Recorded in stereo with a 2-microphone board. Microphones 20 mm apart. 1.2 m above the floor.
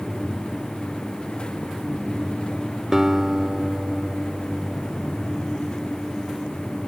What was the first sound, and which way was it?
A guitar, 25° right (ahead or behind).